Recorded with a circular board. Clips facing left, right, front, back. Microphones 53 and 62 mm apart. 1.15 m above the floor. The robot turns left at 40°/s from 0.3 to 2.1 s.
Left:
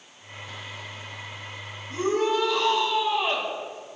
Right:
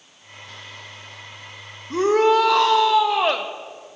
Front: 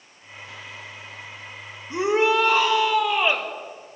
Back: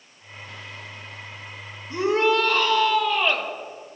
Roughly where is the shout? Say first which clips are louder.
Right 8 dB, even; right.